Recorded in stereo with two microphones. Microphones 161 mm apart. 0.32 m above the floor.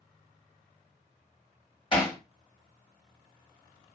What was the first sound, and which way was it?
Hammering, 35° left (ahead or behind).